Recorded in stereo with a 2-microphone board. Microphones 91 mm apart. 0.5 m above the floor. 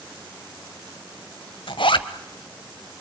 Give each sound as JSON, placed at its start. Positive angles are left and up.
{"t": 1.7, "sound": "a zipper", "side_deg": 65, "distance_m": 1.2}